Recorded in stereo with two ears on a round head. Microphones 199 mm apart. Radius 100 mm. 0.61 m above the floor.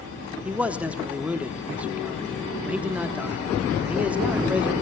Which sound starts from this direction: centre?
A man speaking, at 0.5 s.